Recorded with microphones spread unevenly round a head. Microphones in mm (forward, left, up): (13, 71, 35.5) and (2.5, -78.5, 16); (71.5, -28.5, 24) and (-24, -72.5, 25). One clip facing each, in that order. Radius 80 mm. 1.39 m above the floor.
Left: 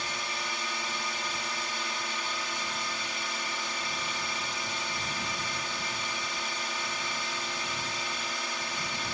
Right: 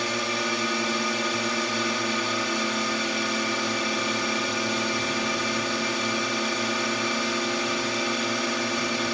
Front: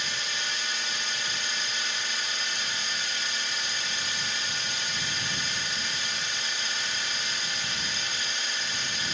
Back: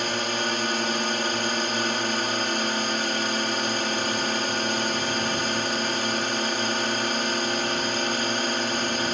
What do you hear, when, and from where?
0.0 s a drone: 115° right